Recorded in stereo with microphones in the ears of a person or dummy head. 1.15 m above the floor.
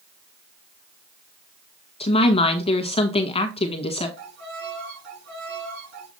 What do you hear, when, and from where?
2.0 s a woman speaking: 25° left (ahead or behind), 1.4 m
4.2 s a violin: 75° right (ahead or behind), 4.5 m